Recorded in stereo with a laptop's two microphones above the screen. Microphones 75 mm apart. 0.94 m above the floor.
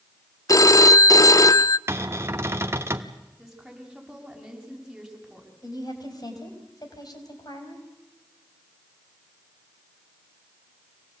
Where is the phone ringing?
45° left (ahead or behind), 0.5 m.